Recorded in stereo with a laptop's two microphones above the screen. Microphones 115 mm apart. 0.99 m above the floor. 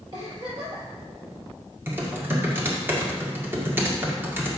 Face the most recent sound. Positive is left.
turn(degrees=-20)  # may be behind; listen again after turning